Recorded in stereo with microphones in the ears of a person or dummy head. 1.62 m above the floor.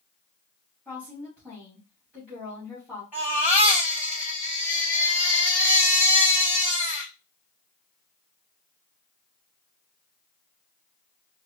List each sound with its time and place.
0.8 s a woman speaking: 5° right (ahead or behind), 3 m
3.1 s a baby crying: 5° right (ahead or behind), 3.5 m